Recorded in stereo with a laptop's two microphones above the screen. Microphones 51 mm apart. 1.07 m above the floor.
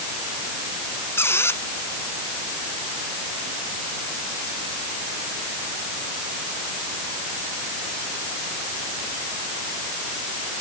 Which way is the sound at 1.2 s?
60° left (ahead or behind).